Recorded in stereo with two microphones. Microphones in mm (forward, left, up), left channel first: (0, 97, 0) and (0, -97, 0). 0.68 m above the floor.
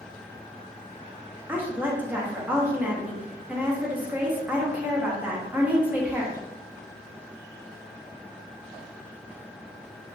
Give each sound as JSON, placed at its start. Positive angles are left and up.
{"t": 1.5, "sound": "a woman speaking", "side_deg": -10, "distance_m": 0.6}